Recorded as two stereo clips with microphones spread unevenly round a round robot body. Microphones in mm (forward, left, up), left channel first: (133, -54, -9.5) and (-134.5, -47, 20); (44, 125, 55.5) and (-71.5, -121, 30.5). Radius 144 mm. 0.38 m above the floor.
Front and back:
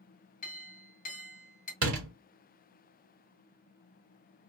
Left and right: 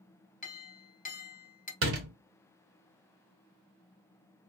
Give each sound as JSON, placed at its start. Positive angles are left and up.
{"t": 0.4, "sound": "a clink", "azimuth_deg": 15, "distance_m": 1.0}
{"t": 1.8, "sound": "a door slam", "azimuth_deg": -145, "distance_m": 1.3}